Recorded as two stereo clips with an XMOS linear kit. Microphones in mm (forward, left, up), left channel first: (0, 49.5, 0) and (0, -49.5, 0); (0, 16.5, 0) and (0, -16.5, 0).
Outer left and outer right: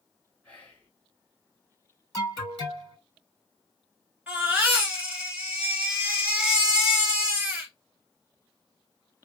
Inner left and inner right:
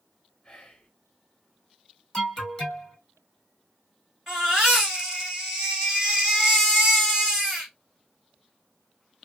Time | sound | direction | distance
0.4 | whispering | 15° left (ahead or behind) | 1.4 m
2.1 | an alarm | 10° left (ahead or behind) | 2.5 m
4.3 | a baby crying | 15° right (ahead or behind) | 1.8 m